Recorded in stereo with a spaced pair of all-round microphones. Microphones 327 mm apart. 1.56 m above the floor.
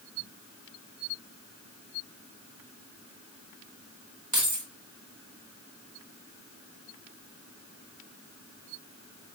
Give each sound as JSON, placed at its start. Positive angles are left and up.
{"t": 4.3, "sound": "keys jangling", "side_deg": -65, "distance_m": 1.6}